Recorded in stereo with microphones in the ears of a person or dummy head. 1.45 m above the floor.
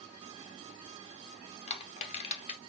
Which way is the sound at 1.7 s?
35° left (ahead or behind).